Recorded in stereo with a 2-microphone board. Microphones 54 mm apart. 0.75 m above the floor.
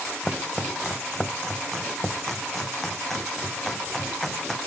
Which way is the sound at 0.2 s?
5° left (ahead or behind).